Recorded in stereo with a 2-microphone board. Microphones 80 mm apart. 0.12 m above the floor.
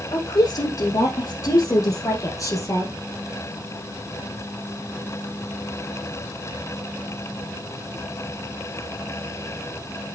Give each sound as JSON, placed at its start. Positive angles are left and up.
{"t": 0.1, "sound": "a woman speaking", "side_deg": 55, "distance_m": 5.0}